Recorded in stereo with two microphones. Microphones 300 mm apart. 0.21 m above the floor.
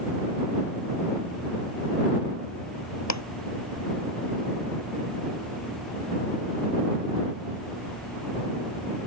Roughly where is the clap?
Left.